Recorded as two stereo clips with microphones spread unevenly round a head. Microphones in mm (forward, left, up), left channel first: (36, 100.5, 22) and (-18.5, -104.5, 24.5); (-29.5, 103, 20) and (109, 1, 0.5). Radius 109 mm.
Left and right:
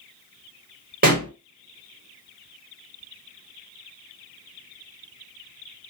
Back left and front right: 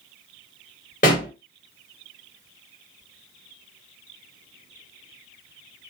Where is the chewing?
No chewing in this recording.